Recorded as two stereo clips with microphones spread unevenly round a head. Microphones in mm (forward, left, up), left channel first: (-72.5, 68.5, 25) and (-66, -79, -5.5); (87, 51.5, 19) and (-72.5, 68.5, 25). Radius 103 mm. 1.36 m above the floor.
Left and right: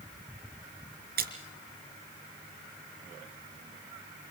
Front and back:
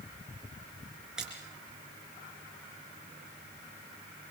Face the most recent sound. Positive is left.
turn(degrees=-100)